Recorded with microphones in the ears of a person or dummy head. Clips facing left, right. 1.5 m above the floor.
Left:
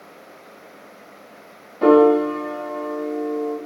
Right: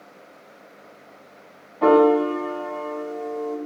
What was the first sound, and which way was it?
A piano, 40° left (ahead or behind).